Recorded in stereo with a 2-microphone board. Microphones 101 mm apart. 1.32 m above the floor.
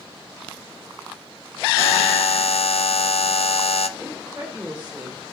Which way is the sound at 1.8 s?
75° left (ahead or behind).